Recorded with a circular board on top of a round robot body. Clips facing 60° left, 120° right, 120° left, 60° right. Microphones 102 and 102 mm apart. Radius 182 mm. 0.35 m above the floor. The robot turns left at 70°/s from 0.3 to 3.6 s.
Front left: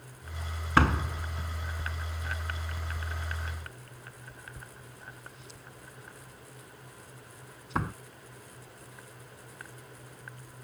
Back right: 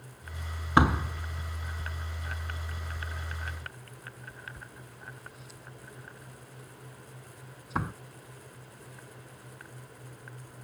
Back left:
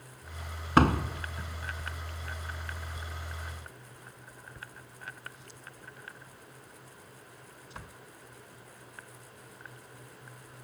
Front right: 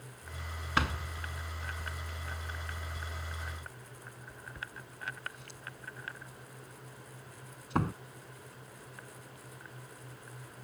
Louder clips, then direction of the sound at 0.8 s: Back right 1 dB, back left 10 dB; 165° left.